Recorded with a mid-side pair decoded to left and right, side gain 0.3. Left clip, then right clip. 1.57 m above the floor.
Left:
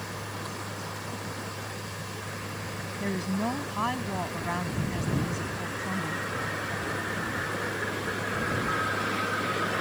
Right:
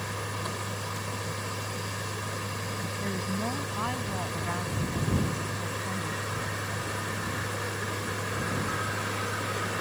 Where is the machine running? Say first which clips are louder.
Right 3 dB; 45° right.